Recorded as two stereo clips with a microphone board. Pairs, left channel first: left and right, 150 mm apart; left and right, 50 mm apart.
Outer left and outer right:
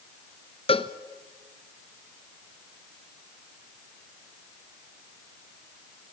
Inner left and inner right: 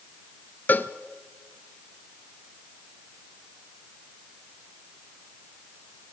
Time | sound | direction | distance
0.7 | a cowbell | 40° left (ahead or behind) | 0.9 m